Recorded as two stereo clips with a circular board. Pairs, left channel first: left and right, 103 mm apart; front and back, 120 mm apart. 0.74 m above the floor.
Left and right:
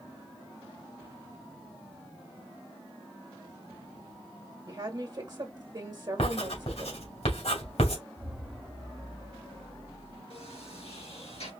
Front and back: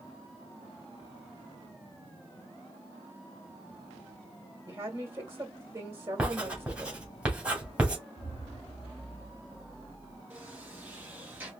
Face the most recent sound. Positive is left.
turn(degrees=105)